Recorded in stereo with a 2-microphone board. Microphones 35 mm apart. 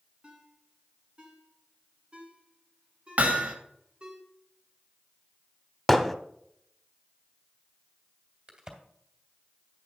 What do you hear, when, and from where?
0.2 s a ringtone: 30° right (ahead or behind), 2.5 m
3.2 s hammering: 50° right (ahead or behind), 1.4 m
5.9 s hammering: 5° left (ahead or behind), 0.7 m
8.5 s a crack: 25° right (ahead or behind), 1.9 m